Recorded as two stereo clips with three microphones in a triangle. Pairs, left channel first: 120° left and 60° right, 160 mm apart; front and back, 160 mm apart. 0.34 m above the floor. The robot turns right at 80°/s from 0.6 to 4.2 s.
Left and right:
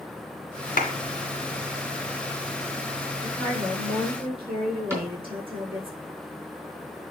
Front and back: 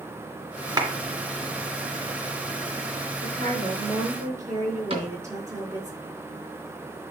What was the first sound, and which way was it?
A clap, 120° left.